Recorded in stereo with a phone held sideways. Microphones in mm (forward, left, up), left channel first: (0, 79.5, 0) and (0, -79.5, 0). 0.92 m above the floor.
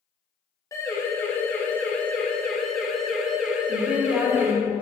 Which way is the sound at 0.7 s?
20° left (ahead or behind).